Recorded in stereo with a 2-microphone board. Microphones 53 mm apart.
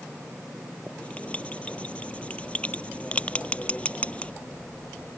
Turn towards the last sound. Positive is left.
turn(degrees=20)  # may be behind; listen again after turning